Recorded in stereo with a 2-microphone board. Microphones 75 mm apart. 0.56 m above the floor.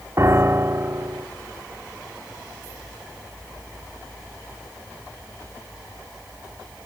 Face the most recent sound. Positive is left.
turn(degrees=-35)  # may be behind; listen again after turning